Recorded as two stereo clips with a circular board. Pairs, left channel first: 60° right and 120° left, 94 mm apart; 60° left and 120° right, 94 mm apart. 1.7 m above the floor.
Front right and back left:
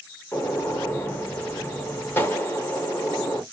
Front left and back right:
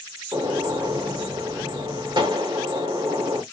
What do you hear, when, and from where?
0.3 s a gunshot: 115° right, 0.9 m